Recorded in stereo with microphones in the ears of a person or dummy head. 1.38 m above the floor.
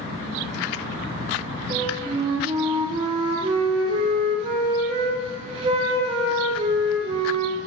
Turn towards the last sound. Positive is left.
turn(degrees=-30)  # may be behind; listen again after turning